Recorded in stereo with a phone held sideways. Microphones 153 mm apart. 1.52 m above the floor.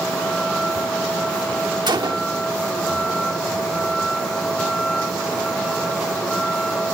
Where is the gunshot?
30° right (ahead or behind).